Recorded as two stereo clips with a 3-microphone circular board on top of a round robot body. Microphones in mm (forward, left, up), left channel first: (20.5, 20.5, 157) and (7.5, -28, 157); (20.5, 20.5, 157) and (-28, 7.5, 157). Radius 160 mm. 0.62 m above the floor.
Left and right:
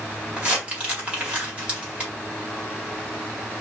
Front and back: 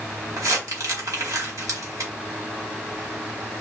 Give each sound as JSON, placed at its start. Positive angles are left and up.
{"t": 0.4, "sound": "crumpling", "azimuth_deg": -170, "distance_m": 2.0}